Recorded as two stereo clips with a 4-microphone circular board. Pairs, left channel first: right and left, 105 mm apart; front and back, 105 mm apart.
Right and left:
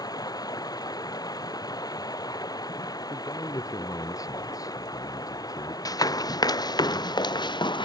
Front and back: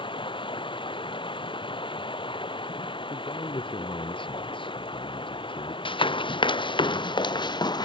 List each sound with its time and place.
0.0 s running water: 35° right
3.1 s a man speaking: 35° right
5.8 s running footsteps: 35° right; by 7.9 s 45° right